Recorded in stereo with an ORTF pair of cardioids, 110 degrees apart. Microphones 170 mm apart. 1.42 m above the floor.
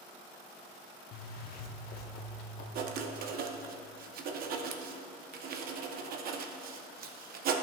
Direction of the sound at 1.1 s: 65° left.